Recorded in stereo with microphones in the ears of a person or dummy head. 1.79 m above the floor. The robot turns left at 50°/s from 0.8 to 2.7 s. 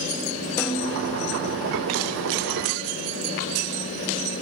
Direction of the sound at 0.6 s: 10° left (ahead or behind).